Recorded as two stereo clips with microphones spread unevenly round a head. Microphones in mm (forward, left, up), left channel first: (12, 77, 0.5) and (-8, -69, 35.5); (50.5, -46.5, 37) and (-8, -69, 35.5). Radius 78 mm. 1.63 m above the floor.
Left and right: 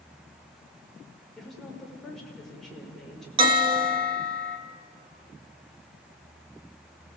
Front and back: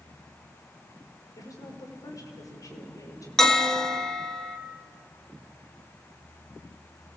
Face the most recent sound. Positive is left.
turn(degrees=-60)